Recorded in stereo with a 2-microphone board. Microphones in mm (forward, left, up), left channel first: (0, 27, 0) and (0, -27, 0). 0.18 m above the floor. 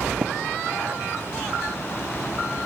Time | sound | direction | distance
0.2 | tapping | 35° right (ahead or behind) | 0.5 m